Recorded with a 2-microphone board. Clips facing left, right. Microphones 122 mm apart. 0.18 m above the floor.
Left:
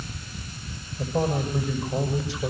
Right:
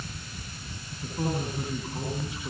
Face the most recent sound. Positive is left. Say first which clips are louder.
# left 6 dB
turn(degrees=80)